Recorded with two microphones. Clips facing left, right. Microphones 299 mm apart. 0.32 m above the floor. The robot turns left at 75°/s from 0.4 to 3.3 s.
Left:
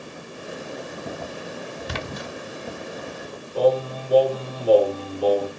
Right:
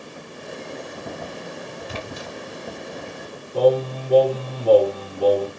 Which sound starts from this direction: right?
Singing, at 3.5 s.